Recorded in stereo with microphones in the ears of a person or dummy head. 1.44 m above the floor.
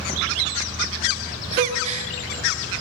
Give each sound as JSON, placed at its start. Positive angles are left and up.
{"t": 1.5, "sound": "a gasp", "side_deg": -40, "distance_m": 2.5}